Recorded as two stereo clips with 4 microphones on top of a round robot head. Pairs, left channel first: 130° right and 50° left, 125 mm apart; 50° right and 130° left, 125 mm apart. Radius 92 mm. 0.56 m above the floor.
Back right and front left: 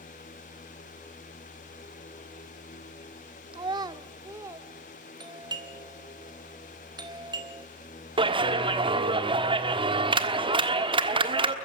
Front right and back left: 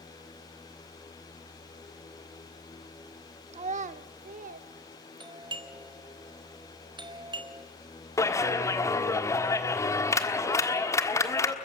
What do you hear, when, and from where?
3.5 s a child speaking: 100° left, 0.7 m; by 5.5 s 125° left, 2 m
5.2 s a doorbell: 95° left, 1.8 m
8.2 s a clap: 10° left, 1.5 m